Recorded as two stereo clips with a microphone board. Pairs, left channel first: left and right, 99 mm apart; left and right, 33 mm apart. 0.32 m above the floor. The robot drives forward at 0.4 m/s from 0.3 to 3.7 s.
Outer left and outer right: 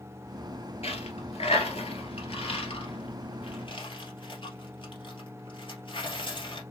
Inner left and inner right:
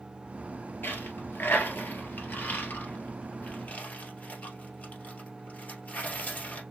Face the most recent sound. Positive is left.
turn(degrees=55)  # may be behind; listen again after turning